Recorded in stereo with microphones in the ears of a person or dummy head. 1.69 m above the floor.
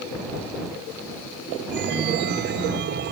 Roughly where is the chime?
Right.